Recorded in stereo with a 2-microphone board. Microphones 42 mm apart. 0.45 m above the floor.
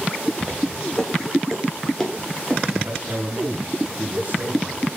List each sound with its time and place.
0.4 s footsteps: 5° right (ahead or behind), 6 m; by 2.6 s 10° left (ahead or behind), 5 m
2.7 s a man speaking: 45° right (ahead or behind), 4 m